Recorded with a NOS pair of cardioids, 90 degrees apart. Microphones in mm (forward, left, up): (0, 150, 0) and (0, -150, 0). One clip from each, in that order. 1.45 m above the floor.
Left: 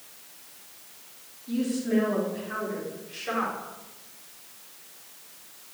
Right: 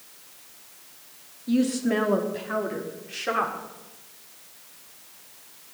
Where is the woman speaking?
65° right, 3.5 m; by 3.6 s 55° right, 5 m.